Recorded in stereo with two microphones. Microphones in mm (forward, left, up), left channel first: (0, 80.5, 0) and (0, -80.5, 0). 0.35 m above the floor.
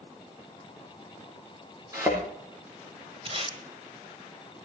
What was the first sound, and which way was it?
A thud, 20° right (ahead or behind).